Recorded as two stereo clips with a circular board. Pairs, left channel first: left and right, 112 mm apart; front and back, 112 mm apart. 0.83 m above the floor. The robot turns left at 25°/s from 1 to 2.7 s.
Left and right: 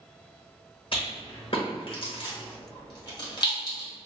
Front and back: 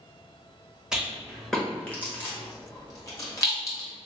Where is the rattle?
95° left, 1.3 m; by 3.9 s 55° left, 1.3 m.